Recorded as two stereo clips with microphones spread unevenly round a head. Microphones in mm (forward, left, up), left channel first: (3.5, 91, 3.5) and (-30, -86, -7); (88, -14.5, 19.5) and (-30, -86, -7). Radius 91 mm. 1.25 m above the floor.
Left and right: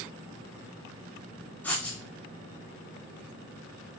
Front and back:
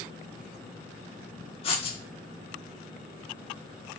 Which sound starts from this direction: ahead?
Writing, at 1.6 s.